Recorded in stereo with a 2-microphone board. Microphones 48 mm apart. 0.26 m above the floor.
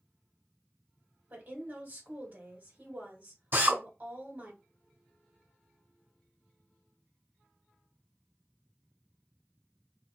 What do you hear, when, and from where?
1.3 s a woman speaking: 40° right (ahead or behind), 2.0 m
3.5 s a drill: 45° right (ahead or behind), 2 m